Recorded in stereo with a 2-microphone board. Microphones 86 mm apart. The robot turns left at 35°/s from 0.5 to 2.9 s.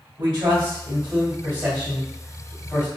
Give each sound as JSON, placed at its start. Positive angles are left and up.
{"t": 0.2, "sound": "a man speaking", "azimuth_deg": -110, "distance_m": 2.0}